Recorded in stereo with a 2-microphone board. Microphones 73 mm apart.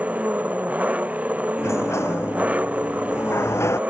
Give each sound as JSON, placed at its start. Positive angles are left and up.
{"t": 0.0, "sound": "an engine running", "side_deg": -20}
{"t": 1.6, "sound": "a sliding door", "side_deg": 40}